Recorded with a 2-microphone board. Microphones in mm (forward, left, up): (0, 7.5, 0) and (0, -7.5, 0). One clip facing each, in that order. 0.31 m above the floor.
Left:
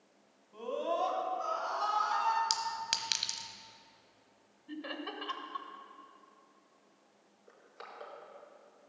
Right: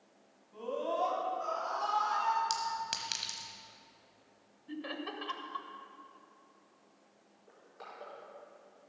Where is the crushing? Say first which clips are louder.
Even; 40° left (ahead or behind), 4.5 m.